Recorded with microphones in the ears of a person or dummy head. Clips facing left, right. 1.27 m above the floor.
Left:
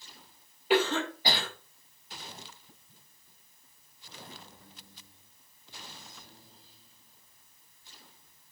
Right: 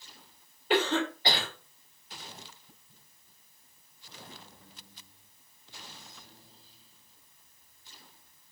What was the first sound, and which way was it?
A cough, 5° left (ahead or behind).